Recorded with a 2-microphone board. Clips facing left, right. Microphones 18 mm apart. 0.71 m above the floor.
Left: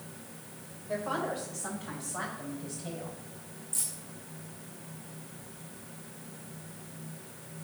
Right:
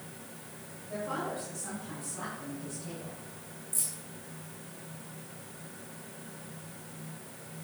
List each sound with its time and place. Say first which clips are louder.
0.9 s a woman speaking: left 3 dB; 65° left (ahead or behind), 3 m; by 3.2 s 80° left, 3.5 m
3.7 s keys jangling: even; 35° left (ahead or behind), 4 m